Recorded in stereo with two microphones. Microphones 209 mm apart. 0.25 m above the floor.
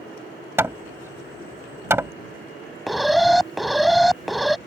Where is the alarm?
Centre (ahead or behind).